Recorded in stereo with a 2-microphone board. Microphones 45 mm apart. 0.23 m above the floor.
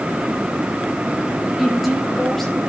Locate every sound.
1.6 s a woman speaking: centre (ahead or behind), 3.5 m; by 2.6 s 10° left (ahead or behind), 4 m